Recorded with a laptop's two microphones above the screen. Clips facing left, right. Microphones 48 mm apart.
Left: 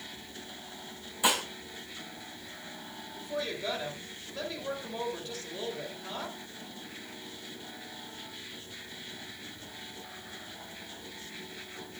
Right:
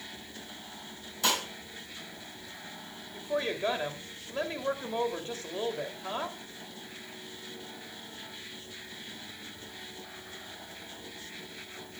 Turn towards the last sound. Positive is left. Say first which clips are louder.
# right 4 dB
turn(degrees=-35)  # may be behind; listen again after turning